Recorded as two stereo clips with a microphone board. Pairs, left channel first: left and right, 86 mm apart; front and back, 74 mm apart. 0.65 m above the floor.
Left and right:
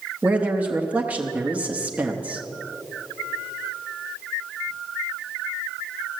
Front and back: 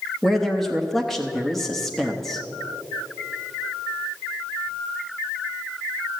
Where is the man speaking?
80° right, 0.8 m.